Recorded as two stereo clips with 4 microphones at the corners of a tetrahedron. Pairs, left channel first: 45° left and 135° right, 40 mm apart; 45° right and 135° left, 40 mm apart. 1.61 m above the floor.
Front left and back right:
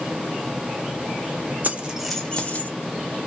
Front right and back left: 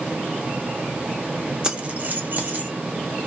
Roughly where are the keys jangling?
Behind.